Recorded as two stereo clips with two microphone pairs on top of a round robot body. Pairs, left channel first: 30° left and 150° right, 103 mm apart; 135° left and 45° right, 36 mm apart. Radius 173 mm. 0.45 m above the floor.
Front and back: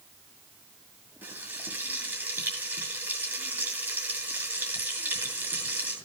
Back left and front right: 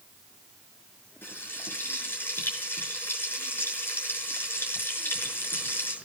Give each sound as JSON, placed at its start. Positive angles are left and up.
{"t": 1.2, "sound": "frying", "azimuth_deg": 140, "distance_m": 7.0}